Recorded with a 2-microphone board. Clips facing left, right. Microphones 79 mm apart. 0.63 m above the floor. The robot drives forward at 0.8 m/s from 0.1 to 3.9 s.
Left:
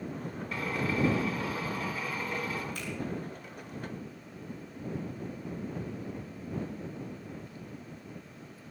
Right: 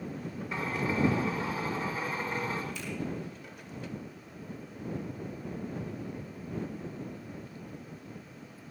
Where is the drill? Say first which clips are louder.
Even; 20° right (ahead or behind), 5.5 m; by 2.6 s 30° right (ahead or behind), 4 m.